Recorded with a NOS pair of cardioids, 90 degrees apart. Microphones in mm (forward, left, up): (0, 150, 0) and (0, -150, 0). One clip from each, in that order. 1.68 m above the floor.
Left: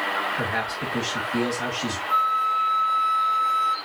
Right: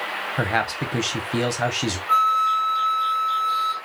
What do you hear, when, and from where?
0.4 s a man speaking: 60° right, 1.3 m
2.1 s a flute: 60° right, 1.3 m